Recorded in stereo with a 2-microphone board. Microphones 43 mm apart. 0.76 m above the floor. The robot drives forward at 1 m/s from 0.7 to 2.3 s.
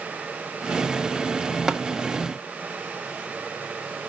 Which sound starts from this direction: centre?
Tapping, at 1.7 s.